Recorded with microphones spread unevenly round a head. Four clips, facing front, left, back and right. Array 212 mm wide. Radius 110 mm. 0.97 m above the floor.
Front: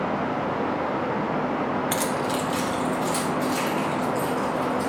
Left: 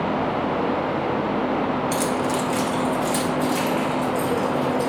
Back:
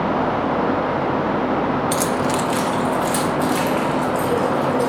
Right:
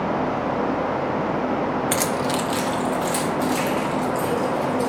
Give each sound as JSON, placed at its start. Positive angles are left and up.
{"t": 1.9, "sound": "keys jangling", "azimuth_deg": -110, "distance_m": 0.5}